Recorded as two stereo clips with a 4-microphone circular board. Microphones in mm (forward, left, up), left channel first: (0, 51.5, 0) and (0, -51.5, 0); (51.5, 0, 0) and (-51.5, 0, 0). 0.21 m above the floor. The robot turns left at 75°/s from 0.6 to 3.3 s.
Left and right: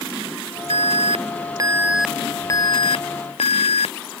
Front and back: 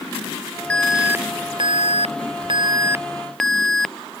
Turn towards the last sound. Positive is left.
turn(degrees=85)